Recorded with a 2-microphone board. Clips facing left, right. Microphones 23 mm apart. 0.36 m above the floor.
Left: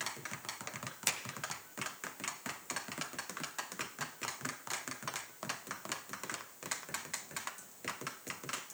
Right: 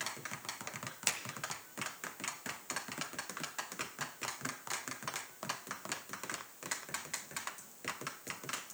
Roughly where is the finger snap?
Centre.